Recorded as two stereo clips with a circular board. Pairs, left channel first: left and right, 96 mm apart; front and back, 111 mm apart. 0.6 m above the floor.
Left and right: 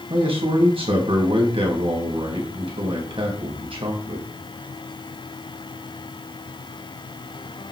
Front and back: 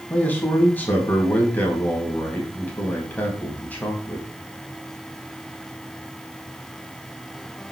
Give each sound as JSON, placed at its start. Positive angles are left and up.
{"t": 0.1, "sound": "a man speaking", "azimuth_deg": -75, "distance_m": 4.5}